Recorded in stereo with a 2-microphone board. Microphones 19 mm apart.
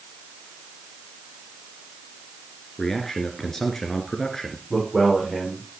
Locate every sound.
2.8 s a man speaking: 15° left (ahead or behind), 2 m
4.7 s a man speaking: 15° right (ahead or behind), 7.5 m